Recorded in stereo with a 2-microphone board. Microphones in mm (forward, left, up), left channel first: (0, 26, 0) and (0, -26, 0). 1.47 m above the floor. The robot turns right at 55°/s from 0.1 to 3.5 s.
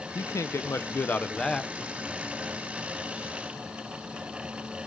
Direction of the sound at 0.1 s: 90° left.